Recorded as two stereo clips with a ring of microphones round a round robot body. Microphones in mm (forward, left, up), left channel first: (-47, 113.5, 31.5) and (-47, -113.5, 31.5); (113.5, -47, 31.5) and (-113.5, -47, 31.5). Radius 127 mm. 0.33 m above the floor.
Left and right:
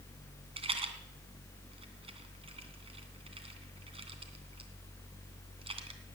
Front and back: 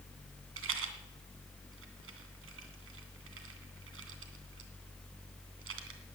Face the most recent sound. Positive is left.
turn(degrees=-155)